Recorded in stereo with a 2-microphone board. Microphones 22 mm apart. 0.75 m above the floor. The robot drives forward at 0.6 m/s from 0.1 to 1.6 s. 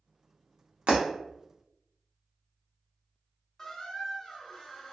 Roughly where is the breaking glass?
Right.